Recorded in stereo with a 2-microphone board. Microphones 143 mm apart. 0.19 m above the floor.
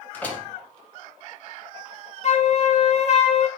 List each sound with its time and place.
0.1 s a door slam: 10° left (ahead or behind), 1.4 m
2.2 s a flute: 55° left (ahead or behind), 0.7 m